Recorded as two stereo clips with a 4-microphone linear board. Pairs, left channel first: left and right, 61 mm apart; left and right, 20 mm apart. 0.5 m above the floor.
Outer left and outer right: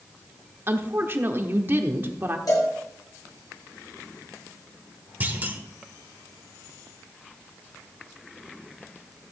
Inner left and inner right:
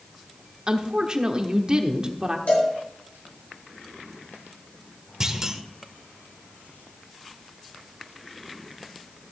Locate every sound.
0.7 s a woman speaking: 40° right (ahead or behind), 1.1 m
2.5 s a cowbell: 80° left, 6 m
5.2 s a clunk: 30° right (ahead or behind), 1.3 m